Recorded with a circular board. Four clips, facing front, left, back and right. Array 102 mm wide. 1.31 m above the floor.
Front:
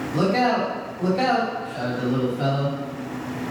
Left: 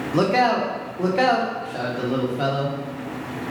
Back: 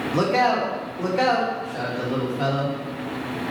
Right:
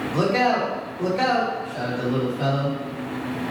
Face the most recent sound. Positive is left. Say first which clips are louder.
# left 2 dB, even
turn(degrees=115)